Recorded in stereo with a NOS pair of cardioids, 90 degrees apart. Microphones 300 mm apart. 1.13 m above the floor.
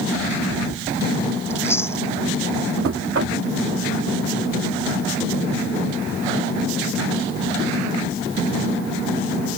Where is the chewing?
10° left.